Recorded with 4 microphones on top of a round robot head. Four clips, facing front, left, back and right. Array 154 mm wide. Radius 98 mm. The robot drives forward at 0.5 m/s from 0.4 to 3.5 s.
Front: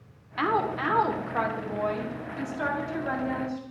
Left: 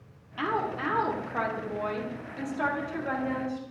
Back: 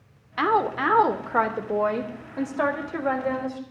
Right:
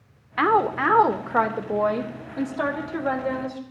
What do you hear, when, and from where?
0.4 s a woman speaking: 110° right, 1.1 m; by 3.6 s 155° right, 2 m